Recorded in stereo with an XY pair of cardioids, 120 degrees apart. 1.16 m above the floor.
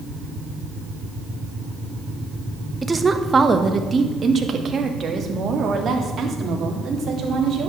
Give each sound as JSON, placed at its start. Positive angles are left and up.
{"t": 2.8, "sound": "a woman speaking", "azimuth_deg": -10, "distance_m": 1.2}